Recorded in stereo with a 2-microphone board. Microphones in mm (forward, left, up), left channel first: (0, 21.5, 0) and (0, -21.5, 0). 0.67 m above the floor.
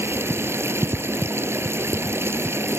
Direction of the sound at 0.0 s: 85° right.